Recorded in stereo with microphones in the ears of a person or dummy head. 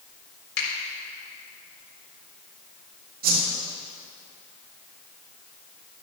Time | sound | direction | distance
0.6 | a finger snap | 85° left | 4 m
3.2 | a whoosh | 45° right (ahead or behind) | 2 m